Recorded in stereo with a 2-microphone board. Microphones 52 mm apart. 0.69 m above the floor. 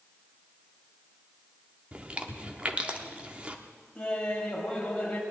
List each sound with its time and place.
1.9 s chewing: 25° right (ahead or behind), 1.0 m
4.0 s laughter: 15° left (ahead or behind), 4 m